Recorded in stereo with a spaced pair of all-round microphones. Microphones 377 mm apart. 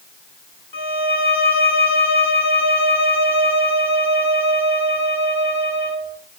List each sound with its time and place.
0.7 s a violin: 70° left (ahead or behind), 1.8 m